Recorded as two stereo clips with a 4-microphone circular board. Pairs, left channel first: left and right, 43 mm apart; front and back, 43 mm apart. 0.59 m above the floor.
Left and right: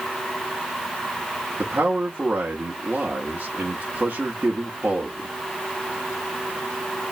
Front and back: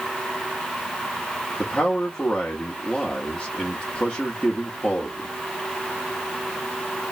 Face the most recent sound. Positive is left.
turn(degrees=-45)